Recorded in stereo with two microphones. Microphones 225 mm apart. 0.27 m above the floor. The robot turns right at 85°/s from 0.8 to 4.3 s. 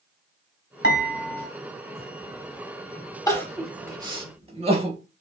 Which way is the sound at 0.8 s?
85° left.